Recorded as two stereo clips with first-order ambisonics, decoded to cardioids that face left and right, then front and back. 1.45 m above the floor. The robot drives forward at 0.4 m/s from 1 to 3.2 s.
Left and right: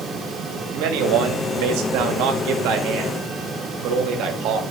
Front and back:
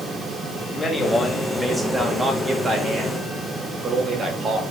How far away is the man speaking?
About 1.4 m.